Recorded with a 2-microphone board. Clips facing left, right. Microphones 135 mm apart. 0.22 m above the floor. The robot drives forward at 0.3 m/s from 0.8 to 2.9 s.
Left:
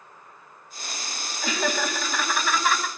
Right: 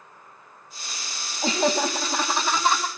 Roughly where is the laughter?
Right.